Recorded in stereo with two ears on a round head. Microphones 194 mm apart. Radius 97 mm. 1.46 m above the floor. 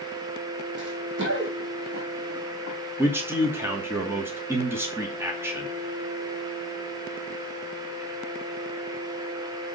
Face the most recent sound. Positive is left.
turn(degrees=-10)  # may be behind; listen again after turning